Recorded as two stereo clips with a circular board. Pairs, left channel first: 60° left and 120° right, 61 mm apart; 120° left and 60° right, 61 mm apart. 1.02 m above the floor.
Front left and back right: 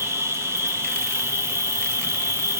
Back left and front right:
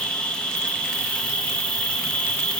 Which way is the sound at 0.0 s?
165° right.